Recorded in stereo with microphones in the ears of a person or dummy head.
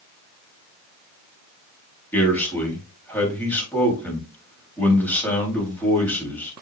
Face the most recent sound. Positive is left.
turn(degrees=10)  # may be behind; listen again after turning